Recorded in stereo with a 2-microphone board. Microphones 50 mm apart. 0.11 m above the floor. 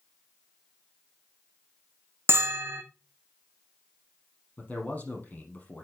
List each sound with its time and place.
2.3 s a bell: 50° right (ahead or behind), 1.2 m
4.6 s a man speaking: 30° left (ahead or behind), 4 m